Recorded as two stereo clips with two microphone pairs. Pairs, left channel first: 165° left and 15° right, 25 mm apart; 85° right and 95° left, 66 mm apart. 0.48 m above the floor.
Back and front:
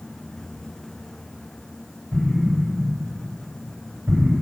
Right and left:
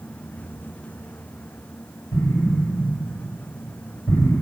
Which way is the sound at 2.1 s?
80° right.